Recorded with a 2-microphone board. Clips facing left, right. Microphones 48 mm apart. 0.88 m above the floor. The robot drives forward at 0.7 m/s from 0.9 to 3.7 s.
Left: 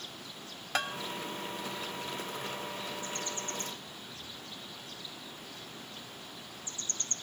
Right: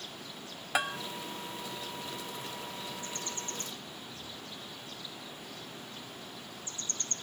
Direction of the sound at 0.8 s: 10° right (ahead or behind).